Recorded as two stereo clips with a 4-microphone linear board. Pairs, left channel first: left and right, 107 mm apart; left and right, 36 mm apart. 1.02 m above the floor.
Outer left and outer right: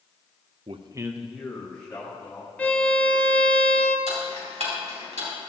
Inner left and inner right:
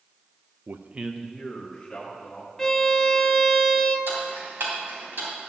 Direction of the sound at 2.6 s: 10° left (ahead or behind).